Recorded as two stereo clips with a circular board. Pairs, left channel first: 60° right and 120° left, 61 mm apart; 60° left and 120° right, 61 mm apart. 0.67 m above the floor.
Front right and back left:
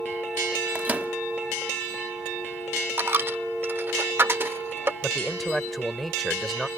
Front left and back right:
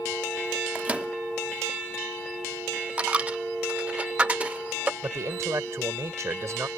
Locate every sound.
0.8 s a microwave: 175° left
3.0 s a dropped coin: 170° left
5.0 s a man speaking: 150° right